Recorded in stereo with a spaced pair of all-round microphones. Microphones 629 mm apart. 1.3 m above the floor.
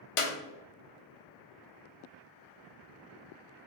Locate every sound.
0.2 s a clap: 60° left (ahead or behind), 0.5 m